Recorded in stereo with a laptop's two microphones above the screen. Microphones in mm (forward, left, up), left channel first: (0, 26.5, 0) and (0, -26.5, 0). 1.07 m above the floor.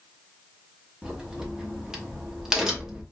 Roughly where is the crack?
Centre.